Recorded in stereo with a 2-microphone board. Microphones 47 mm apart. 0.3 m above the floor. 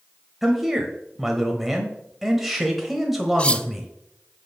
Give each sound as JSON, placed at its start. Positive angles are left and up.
{"t": 0.4, "sound": "a man speaking", "side_deg": -5, "distance_m": 1.1}
{"t": 3.4, "sound": "cutlery clinking", "side_deg": 25, "distance_m": 0.5}